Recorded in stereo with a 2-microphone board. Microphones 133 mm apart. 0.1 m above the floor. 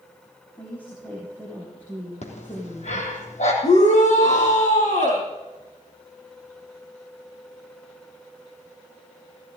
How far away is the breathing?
About 3.5 m.